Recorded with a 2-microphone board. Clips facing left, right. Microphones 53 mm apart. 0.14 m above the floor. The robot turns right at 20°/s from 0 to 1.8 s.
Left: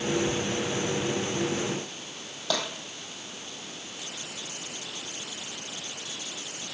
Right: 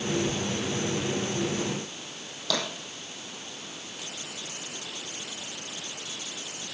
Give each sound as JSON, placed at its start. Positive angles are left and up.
{"t": 2.5, "sound": "tapping", "side_deg": 20, "distance_m": 3.5}